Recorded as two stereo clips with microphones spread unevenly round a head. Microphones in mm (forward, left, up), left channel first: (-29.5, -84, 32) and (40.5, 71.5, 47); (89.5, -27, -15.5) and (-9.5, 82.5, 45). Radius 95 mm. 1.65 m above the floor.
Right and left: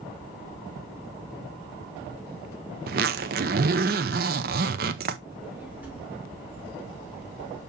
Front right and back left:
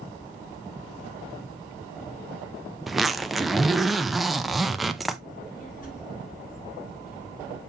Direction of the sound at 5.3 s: 15° right.